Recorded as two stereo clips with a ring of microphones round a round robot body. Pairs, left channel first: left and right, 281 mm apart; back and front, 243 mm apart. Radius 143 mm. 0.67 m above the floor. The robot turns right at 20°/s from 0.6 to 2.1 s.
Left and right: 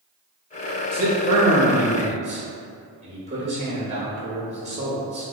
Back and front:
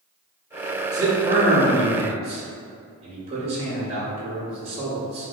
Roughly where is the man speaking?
Ahead right.